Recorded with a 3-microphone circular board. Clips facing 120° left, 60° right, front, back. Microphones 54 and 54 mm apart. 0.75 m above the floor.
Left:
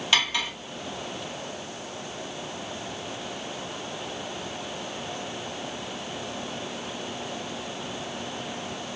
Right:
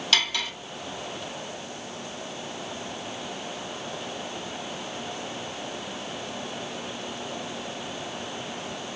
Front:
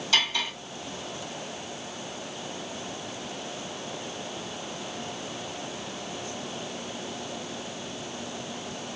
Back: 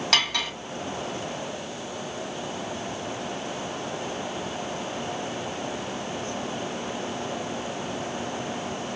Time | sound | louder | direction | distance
0.1 | cutlery clinking | left 1 dB, even | 165° right | 1.3 m